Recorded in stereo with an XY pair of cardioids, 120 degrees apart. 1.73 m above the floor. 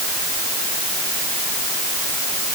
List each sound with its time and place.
Only background noise.